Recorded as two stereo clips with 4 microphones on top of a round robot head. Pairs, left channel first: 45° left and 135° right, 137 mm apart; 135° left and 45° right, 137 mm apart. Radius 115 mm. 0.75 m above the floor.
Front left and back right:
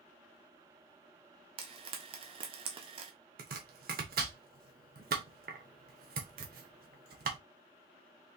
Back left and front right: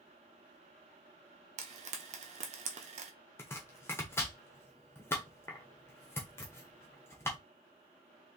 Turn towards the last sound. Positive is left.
turn(degrees=-150)